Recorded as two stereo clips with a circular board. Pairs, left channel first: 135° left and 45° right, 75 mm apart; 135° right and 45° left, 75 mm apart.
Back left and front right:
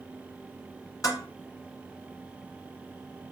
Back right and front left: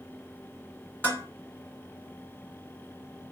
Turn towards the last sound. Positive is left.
turn(degrees=165)